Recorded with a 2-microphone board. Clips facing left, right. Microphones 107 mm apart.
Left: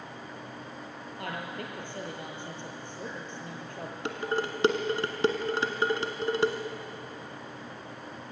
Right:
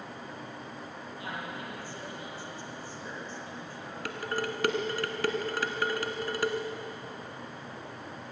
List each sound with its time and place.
1.2 s a woman speaking: 60° left (ahead or behind), 5.5 m
4.0 s dishes clattering: 25° left (ahead or behind), 1.7 m